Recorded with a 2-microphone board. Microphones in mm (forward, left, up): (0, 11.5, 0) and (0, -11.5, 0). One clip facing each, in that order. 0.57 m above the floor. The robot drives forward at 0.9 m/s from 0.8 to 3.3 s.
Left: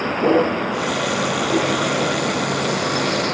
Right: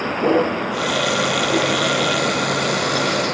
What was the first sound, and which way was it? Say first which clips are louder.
A vehicle: left 1 dB; 5° left (ahead or behind).